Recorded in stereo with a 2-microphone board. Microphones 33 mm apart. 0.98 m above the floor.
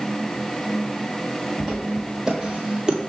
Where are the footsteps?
10° right (ahead or behind), 1.8 m; by 3.1 s 25° right (ahead or behind), 1.1 m.